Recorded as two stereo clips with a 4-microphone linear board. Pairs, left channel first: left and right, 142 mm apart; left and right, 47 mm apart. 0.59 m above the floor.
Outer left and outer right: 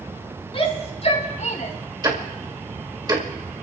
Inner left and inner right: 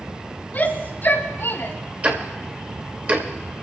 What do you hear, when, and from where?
0.5 s a shout: 40° left (ahead or behind), 4 m; by 1.7 s 65° left (ahead or behind), 4 m
2.0 s ticking: 30° right (ahead or behind), 2.0 m